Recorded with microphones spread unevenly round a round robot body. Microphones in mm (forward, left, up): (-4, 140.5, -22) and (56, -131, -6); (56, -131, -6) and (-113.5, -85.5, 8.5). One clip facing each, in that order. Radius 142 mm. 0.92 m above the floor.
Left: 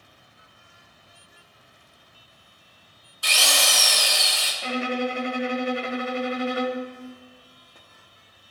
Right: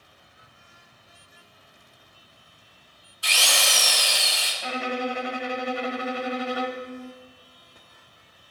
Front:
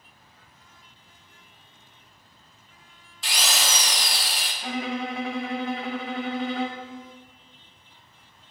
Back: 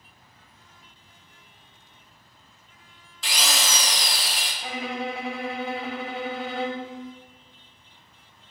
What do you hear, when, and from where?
3.2 s a drill: 155° left, 0.8 m
4.6 s a violin: 90° left, 0.7 m